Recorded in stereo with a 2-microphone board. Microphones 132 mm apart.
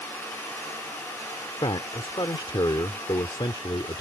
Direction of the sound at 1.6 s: 40° left (ahead or behind).